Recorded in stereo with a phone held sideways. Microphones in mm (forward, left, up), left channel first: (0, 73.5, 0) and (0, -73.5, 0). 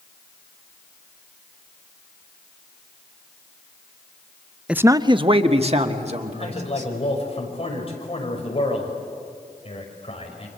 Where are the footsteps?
No footsteps in this recording.